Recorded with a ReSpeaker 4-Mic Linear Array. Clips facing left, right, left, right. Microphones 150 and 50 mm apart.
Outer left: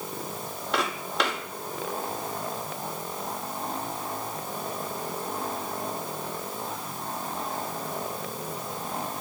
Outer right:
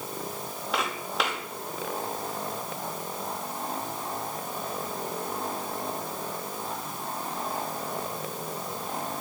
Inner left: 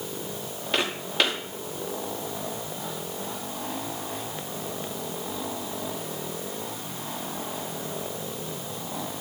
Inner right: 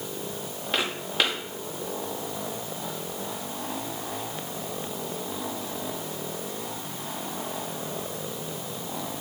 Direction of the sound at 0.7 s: 5° right (ahead or behind).